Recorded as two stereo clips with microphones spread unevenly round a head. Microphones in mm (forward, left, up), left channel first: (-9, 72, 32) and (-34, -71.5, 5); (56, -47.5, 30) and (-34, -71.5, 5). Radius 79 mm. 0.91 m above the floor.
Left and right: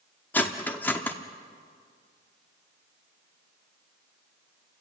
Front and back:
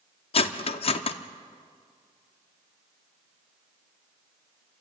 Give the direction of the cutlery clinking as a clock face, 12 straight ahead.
12 o'clock.